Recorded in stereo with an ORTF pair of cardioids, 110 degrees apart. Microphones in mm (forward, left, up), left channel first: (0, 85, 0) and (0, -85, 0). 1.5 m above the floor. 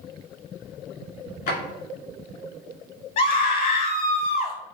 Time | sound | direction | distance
1.5 | a drawer | 60° left | 2 m
3.2 | a scream | 60° left | 1.5 m